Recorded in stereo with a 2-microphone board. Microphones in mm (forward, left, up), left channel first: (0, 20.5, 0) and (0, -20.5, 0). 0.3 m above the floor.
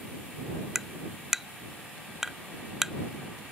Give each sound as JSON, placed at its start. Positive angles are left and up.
{"t": 0.8, "sound": "tapping", "side_deg": -5}